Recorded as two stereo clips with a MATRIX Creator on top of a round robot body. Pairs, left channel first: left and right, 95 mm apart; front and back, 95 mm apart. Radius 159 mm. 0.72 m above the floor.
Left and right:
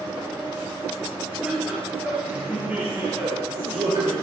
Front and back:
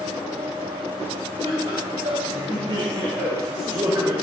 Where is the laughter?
175° right, 4 m; by 4.1 s 120° right, 2 m.